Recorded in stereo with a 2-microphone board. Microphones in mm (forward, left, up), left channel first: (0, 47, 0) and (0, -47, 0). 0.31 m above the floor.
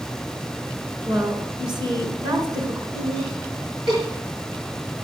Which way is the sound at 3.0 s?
55° right (ahead or behind).